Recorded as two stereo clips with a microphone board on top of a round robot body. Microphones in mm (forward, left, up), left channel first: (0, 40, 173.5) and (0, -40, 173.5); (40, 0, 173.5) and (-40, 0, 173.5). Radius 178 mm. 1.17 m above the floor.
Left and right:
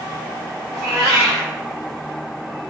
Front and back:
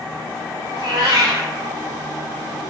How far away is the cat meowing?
About 0.6 m.